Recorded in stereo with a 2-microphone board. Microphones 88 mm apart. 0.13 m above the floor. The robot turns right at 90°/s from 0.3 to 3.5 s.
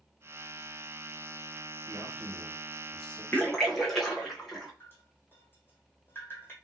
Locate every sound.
1.9 s a man speaking: 100° right, 3 m; by 3.2 s 20° left, 3 m
3.3 s a splash: 20° left (ahead or behind), 1.4 m; by 4.7 s 5° left (ahead or behind), 1.4 m
4.8 s dripping: 25° left (ahead or behind), 2 m